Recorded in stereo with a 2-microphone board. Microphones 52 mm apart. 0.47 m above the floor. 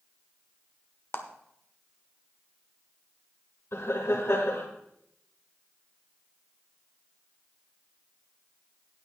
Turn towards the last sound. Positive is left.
turn(degrees=60)  # may be behind; listen again after turning